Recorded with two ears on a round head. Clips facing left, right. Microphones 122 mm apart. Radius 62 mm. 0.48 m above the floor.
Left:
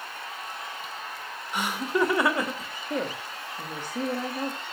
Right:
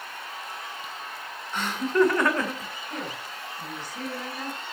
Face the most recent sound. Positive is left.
turn(degrees=40)  # may be behind; listen again after turning